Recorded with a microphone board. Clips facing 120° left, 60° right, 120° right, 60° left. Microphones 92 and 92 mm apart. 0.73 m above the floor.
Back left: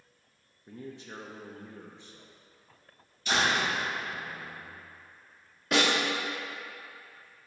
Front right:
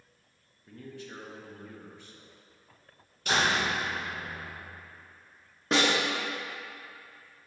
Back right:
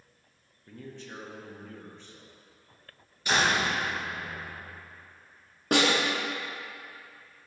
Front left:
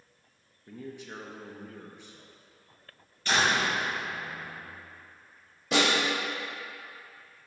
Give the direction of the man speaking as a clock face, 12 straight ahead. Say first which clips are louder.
Back left 1 dB, front left 2 dB; 8 o'clock.